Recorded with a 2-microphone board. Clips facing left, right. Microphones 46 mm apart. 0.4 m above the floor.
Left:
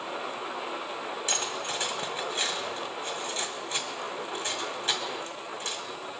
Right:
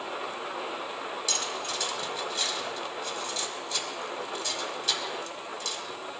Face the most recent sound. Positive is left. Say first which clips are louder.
# left 2 dB
turn(degrees=35)  # may be behind; listen again after turning